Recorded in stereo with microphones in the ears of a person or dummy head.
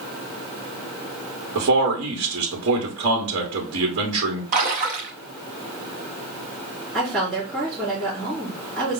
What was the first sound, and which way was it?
A man speaking, 60° right (ahead or behind).